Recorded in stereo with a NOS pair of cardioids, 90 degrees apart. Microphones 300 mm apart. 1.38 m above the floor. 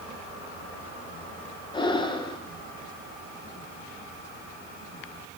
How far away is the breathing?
About 1.3 m.